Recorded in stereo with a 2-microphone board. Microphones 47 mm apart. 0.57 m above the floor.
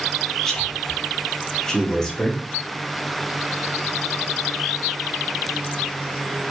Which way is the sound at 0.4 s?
10° left (ahead or behind).